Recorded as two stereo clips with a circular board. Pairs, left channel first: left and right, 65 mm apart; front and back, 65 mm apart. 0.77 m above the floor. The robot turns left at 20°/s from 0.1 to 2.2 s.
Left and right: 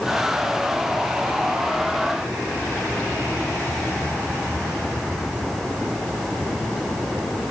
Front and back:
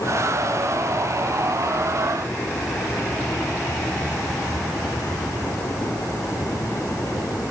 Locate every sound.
Only background noise.